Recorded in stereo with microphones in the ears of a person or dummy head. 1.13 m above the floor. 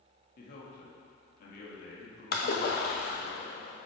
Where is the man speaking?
55° left (ahead or behind), 1.4 m.